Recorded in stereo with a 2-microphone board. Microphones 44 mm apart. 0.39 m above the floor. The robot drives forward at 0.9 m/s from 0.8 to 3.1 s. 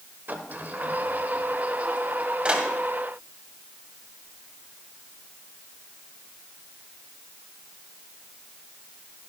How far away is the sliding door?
About 1.2 m.